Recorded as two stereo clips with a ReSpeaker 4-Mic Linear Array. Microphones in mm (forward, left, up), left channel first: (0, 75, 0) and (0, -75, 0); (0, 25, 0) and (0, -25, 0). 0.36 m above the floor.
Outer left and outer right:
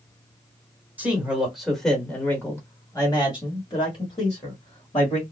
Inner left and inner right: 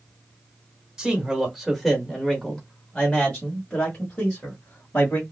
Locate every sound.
1.0 s a man speaking: 10° right (ahead or behind), 1.3 m; by 5.2 s 40° left (ahead or behind), 1.9 m